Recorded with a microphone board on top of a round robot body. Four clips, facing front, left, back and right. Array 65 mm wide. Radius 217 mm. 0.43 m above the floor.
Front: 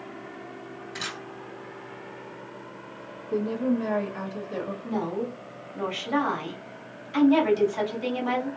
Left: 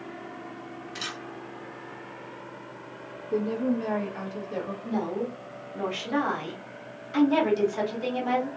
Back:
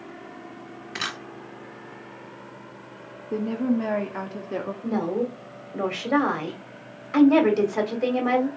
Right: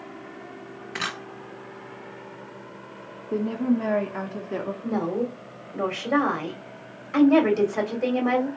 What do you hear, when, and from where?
0.9 s a camera shutter: 120° right, 0.7 m
3.3 s a woman speaking: 140° right, 1.6 m
4.8 s a woman speaking: 145° right, 2 m